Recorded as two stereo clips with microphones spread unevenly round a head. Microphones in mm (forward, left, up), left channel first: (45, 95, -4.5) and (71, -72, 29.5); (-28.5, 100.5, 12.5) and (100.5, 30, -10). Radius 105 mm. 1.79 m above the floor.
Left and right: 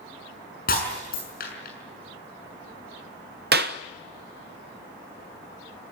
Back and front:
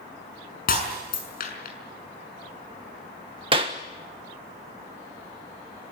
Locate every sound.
0.7 s breaking glass: 150° left, 5.5 m
3.5 s a clap: 95° right, 1.3 m